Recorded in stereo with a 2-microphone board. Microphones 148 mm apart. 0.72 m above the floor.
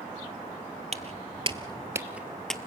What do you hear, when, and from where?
0.9 s footsteps: 50° right (ahead or behind), 1.0 m; by 2.7 s 5° left (ahead or behind), 1.0 m